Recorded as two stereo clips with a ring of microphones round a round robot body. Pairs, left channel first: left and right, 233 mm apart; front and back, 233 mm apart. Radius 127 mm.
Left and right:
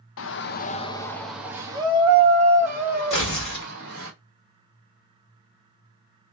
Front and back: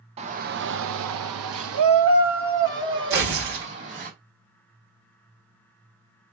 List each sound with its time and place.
0.2 s a shout: 115° left, 0.6 m; by 4.1 s 140° right, 1.9 m
3.1 s tearing paper: 155° left, 1.8 m